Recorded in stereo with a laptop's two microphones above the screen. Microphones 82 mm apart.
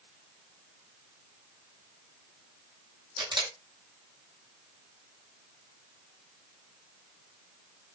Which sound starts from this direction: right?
A camera shutter, at 3.2 s.